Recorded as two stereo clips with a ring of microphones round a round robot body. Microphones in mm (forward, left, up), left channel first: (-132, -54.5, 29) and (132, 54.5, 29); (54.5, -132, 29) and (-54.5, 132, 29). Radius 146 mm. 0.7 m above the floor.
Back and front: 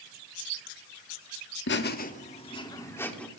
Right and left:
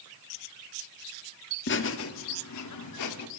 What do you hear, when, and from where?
1.7 s laughter: 115° right, 1.5 m; by 3.3 s 70° right, 2 m